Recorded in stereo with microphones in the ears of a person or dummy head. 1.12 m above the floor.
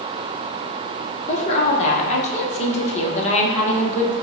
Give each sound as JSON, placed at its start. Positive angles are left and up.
{"t": 1.3, "sound": "a woman speaking", "side_deg": 35, "distance_m": 0.9}